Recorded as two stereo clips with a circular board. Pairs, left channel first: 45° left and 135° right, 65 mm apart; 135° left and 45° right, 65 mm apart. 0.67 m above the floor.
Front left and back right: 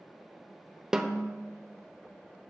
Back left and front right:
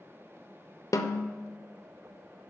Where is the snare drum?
145° left, 0.5 m.